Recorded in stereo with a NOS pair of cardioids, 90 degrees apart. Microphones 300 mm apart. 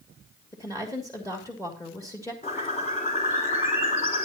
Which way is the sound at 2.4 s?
25° left.